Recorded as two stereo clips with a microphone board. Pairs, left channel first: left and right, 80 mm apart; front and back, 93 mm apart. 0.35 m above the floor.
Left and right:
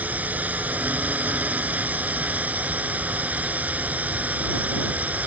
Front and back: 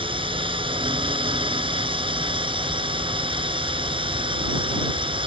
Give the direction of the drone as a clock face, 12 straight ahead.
5 o'clock.